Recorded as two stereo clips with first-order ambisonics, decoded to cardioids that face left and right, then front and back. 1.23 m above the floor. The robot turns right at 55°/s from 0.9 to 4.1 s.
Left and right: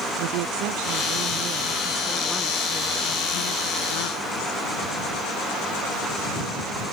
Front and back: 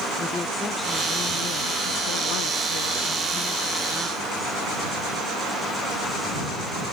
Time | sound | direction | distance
0.2 | a woman speaking | 75° right | ?